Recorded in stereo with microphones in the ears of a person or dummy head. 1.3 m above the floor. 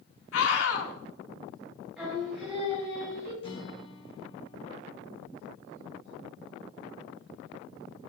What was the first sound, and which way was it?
A scream, 85° left.